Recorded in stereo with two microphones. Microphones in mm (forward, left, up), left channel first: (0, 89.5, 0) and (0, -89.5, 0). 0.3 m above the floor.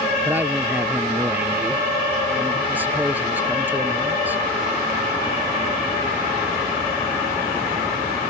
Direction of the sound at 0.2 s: 10° right (ahead or behind).